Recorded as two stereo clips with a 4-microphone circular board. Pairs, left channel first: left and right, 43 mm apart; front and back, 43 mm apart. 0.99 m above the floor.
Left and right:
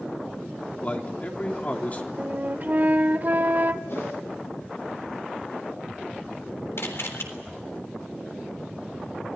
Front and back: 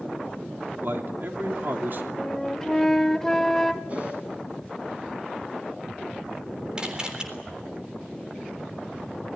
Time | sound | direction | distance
0.8 | a man speaking | 145° left | 3 m
2.2 | a flute | 75° right | 0.8 m
3.9 | a whoosh | 120° left | 8.5 m
6.8 | a camera shutter | 110° left | 3.5 m